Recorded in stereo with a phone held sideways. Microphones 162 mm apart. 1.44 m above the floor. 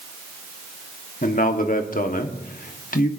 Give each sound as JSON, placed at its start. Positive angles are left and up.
{"t": 1.2, "sound": "a man speaking", "side_deg": 60, "distance_m": 1.2}